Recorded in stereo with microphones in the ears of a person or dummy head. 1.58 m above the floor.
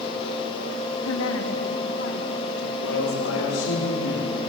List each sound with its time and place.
1.1 s a woman speaking: 75° left (ahead or behind), 2.5 m; by 3.8 s 45° left (ahead or behind), 6.5 m
2.8 s a man speaking: 80° left, 4.5 m